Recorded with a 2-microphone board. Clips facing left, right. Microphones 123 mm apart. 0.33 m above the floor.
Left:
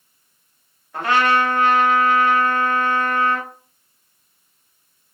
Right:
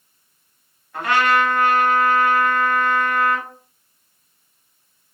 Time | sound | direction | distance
0.9 | a trumpet | 30° left (ahead or behind) | 0.9 m